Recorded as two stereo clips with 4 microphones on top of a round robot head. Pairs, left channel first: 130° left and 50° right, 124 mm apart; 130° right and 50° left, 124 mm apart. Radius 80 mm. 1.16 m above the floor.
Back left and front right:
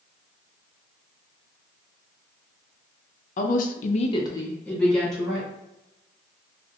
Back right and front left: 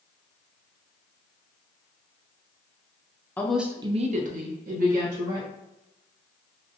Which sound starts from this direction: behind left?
A woman speaking, at 3.4 s.